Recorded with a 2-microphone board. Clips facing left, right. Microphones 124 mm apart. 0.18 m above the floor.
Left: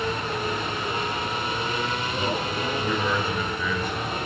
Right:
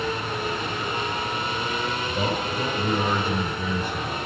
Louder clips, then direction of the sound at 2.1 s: Right 1 dB; 45° right (ahead or behind).